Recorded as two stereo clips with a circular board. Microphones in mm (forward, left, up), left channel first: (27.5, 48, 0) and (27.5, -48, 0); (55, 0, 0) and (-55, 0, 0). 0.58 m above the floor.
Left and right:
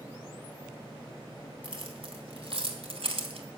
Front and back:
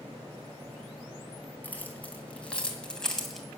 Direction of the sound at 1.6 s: 75° right.